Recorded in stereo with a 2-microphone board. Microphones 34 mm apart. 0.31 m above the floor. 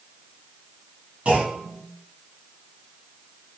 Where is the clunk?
45° right (ahead or behind), 1.6 m.